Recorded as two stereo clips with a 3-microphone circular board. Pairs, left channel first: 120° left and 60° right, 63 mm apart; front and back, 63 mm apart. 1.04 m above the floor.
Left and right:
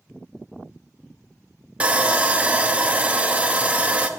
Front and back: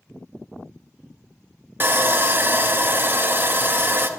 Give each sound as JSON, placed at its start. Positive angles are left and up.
{"t": 1.8, "sound": "sawing", "azimuth_deg": -125, "distance_m": 0.6}